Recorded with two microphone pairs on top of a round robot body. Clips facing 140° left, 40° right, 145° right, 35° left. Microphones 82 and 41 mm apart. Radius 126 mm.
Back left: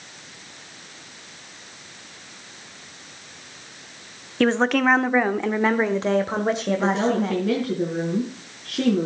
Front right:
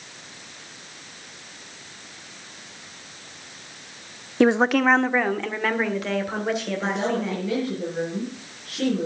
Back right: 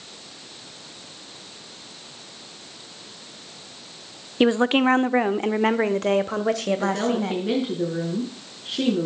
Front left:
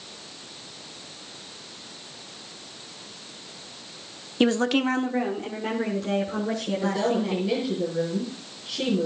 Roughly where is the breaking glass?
I don't hear breaking glass.